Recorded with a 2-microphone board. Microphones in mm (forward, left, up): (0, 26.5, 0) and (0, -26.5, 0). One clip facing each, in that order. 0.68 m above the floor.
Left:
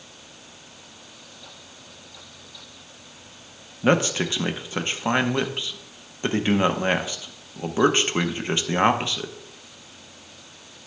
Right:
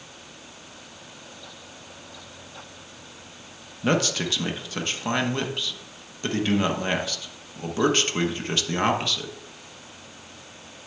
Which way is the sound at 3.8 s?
20° left (ahead or behind).